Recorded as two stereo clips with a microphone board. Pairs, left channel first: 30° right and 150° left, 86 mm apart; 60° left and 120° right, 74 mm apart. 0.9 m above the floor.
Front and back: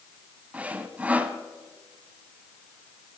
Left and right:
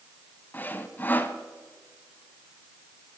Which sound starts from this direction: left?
Sawing, at 0.5 s.